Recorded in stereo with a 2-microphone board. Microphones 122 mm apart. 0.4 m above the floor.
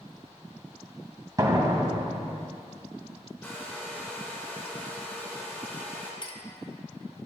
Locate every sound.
1.4 s a door slam: 30° right (ahead or behind), 1.6 m
3.4 s a hair dryer: 15° left (ahead or behind), 2.5 m
6.2 s a clink: 40° left (ahead or behind), 1.0 m